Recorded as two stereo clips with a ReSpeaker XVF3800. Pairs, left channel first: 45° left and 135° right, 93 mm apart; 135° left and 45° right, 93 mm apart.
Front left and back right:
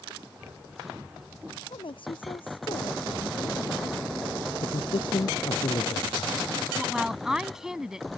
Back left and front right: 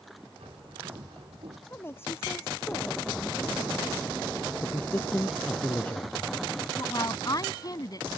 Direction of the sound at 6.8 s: 145° left.